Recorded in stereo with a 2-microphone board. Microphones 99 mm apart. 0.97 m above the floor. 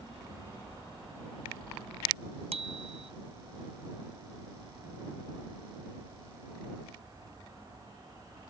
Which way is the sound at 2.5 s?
80° right.